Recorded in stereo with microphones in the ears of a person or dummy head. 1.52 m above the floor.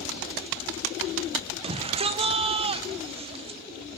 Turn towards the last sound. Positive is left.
turn(degrees=-30)  # may be behind; listen again after turning